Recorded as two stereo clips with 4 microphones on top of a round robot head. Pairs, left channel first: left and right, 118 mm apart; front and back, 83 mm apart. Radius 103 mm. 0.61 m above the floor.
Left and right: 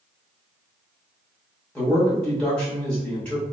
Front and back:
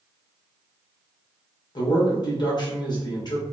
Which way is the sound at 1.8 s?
10° left.